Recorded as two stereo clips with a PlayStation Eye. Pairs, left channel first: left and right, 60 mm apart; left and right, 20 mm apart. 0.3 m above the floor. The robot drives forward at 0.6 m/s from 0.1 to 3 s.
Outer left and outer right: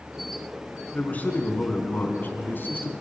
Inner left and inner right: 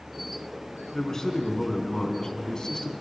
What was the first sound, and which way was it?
A man speaking, 25° left (ahead or behind).